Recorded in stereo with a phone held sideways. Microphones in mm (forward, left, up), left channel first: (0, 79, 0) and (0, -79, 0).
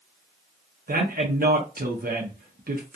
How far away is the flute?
I don't hear a flute.